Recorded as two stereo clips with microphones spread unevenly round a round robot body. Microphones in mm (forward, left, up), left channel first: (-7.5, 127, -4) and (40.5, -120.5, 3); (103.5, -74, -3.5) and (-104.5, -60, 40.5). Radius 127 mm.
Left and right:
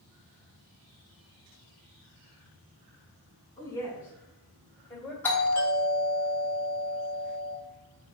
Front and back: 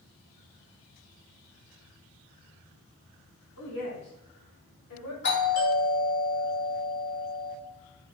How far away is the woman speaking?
About 3.5 m.